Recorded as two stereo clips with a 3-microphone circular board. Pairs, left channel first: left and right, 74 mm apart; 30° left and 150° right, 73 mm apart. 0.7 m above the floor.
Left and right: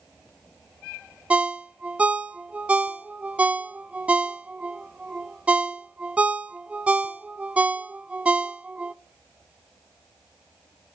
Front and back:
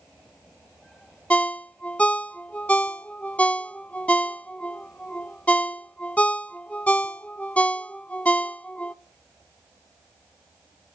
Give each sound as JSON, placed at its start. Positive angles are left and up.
{"t": 1.3, "sound": "a ringtone", "azimuth_deg": -30, "distance_m": 0.5}